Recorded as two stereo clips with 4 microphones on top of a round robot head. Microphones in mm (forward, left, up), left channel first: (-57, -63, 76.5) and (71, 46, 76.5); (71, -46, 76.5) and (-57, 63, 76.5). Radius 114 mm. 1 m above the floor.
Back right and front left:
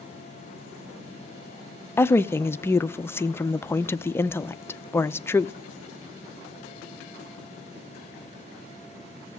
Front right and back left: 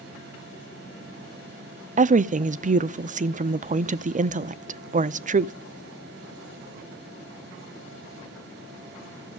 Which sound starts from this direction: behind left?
A woman speaking, at 2.0 s.